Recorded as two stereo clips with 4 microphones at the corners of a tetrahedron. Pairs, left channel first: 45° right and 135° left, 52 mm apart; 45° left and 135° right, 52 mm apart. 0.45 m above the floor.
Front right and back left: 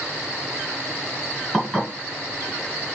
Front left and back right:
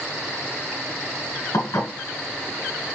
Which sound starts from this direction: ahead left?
Dishes clattering, at 1.5 s.